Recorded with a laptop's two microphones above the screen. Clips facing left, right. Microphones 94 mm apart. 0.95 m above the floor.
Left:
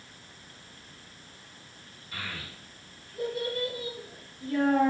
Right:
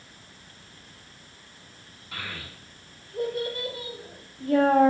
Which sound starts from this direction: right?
A child speaking, at 2.1 s.